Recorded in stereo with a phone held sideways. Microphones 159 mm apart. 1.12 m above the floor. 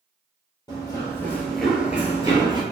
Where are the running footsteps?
20° left (ahead or behind), 1.5 m; by 2.6 s 25° right (ahead or behind), 1.3 m.